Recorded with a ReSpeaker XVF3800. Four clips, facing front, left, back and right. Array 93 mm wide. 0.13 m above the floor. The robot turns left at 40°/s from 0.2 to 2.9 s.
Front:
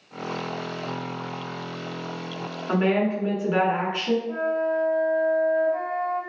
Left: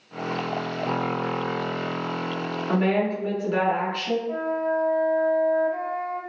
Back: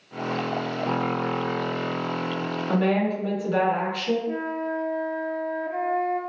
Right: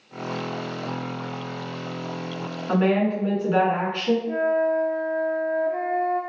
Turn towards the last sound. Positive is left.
turn(degrees=-145)